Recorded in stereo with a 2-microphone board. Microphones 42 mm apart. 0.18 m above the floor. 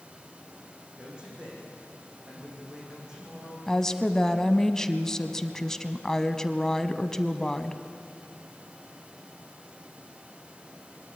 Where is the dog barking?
No dog barking in this recording.